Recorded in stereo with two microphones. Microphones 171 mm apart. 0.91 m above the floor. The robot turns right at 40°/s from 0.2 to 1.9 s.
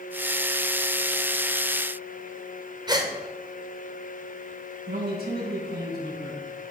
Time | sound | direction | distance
2.9 | a gasp | 25° right (ahead or behind) | 3 m
4.9 | a man speaking | 65° right (ahead or behind) | 7 m